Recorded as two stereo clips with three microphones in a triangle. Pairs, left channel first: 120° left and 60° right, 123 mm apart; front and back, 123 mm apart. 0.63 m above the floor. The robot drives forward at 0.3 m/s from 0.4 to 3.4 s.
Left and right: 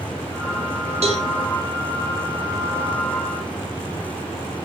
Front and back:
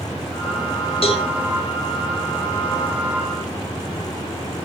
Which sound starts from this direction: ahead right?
A cowbell, at 1.0 s.